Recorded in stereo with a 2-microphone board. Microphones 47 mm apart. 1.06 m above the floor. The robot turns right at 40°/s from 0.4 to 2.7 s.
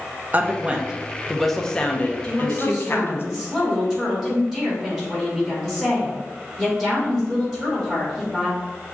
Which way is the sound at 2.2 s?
10° left (ahead or behind).